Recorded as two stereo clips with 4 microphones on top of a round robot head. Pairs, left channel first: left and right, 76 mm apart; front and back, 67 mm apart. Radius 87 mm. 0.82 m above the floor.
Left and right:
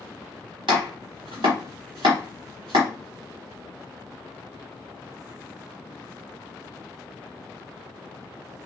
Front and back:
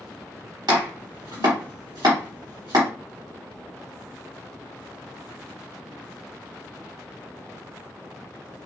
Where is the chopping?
130° right, 0.9 m.